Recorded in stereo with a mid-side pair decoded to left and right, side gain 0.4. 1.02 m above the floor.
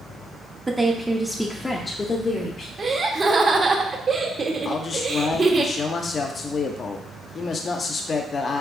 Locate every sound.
0.7 s a woman speaking: 25° right, 0.9 m; by 2.7 s 60° left, 1.1 m
2.8 s laughter: 45° right, 1.3 m
4.7 s a man speaking: 50° left, 0.7 m